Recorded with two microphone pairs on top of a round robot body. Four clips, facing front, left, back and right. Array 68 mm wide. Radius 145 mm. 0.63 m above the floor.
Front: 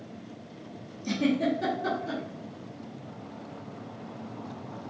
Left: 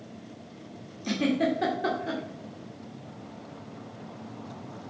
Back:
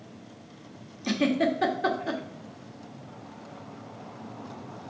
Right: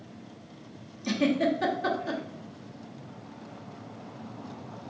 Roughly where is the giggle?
Behind.